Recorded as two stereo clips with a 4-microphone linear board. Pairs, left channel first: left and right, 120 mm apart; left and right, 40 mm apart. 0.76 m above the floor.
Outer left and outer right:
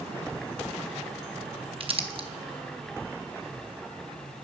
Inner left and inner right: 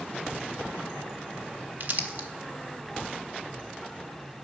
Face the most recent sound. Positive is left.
turn(degrees=-50)  # may be behind; listen again after turning